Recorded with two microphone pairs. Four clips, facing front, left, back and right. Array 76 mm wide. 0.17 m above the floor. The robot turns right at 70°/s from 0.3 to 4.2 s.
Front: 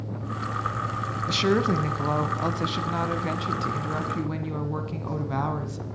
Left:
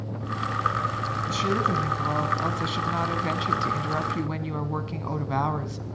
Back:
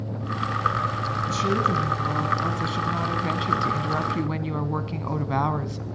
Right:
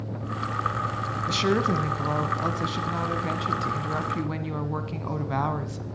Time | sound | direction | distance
1.3 | a woman speaking | 35° right | 1.2 m